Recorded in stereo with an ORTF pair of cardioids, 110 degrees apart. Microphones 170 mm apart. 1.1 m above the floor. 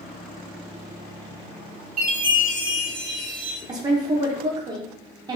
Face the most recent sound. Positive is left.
turn(degrees=-25)